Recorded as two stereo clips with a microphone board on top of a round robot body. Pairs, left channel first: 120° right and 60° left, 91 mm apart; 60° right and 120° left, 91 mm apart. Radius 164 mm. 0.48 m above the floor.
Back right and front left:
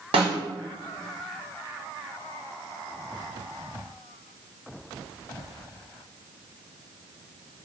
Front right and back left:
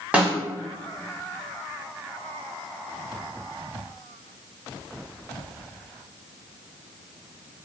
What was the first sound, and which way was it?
A snare drum, 45° left.